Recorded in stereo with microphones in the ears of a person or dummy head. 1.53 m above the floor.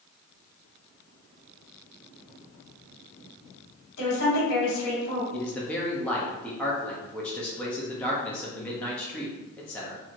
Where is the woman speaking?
55° left (ahead or behind), 1.8 m.